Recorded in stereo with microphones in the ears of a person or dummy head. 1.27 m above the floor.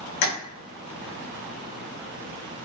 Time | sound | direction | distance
0.2 | tapping | 60° left (ahead or behind) | 0.9 m